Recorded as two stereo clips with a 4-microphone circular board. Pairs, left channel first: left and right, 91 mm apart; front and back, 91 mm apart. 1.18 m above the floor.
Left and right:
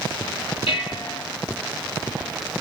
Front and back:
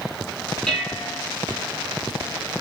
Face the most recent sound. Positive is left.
turn(degrees=80)